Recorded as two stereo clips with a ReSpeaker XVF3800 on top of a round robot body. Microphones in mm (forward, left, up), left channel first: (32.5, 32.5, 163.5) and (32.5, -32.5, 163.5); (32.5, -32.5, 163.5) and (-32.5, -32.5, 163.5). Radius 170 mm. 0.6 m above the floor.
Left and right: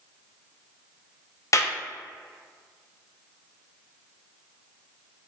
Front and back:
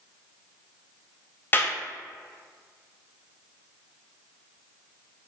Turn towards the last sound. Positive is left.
turn(degrees=55)